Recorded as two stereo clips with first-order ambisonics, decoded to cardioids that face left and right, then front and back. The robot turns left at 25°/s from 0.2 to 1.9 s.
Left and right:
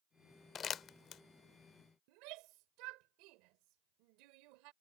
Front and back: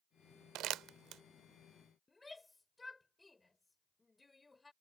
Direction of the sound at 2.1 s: 80° right.